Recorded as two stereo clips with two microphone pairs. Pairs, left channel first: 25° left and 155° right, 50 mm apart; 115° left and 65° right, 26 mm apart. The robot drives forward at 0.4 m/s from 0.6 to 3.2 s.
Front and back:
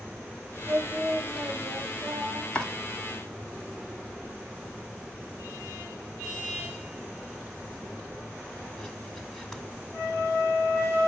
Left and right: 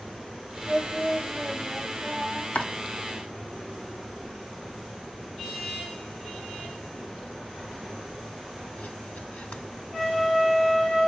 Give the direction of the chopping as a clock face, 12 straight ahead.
9 o'clock.